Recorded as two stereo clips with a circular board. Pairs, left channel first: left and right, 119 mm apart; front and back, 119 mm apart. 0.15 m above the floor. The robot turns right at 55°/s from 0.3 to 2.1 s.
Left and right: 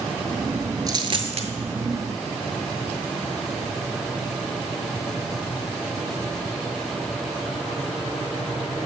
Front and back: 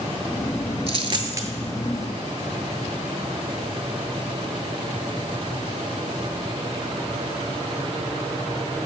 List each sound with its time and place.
0.9 s a dropped coin: 145° right, 0.6 m; by 1.5 s 110° right, 0.6 m